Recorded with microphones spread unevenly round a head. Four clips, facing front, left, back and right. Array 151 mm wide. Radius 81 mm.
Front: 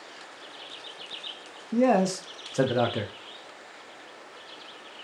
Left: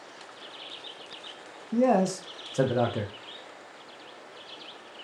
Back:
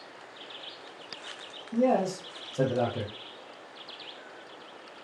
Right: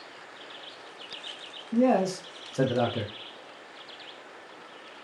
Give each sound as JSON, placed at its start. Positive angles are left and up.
{"t": 1.7, "sound": "a man speaking", "azimuth_deg": 40, "distance_m": 0.7}